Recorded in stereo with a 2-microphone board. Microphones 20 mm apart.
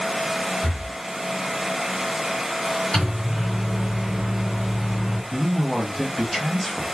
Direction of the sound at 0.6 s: 50° left (ahead or behind).